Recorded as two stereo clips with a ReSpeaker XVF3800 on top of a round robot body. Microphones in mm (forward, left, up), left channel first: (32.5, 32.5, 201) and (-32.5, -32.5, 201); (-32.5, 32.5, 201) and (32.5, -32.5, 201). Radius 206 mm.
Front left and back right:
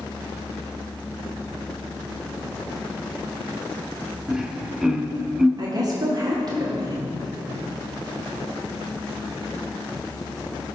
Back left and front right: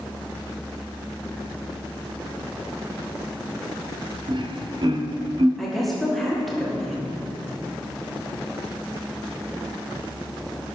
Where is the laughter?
55° right, 1.5 m.